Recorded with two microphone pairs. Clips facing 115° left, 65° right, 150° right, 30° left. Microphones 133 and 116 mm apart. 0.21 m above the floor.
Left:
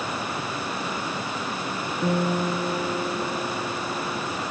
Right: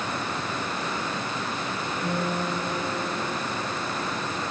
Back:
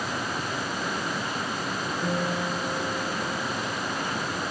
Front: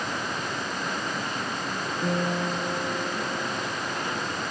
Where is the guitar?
110° left, 5 m.